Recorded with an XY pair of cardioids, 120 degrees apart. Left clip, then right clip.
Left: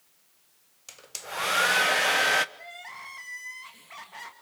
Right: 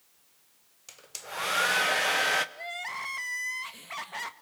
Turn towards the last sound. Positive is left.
turn(degrees=-40)